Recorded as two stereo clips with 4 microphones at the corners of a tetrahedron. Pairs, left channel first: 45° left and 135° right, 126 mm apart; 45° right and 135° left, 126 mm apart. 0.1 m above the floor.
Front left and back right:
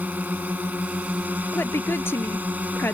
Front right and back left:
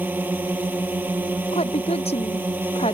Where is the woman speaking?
25° right.